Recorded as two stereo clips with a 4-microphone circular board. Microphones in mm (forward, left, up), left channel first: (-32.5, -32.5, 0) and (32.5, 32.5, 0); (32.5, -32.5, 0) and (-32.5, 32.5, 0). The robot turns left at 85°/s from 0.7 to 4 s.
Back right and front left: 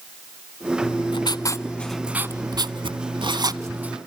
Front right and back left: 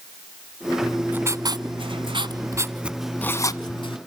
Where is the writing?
130° right, 0.9 m; by 4.0 s 35° right, 0.9 m.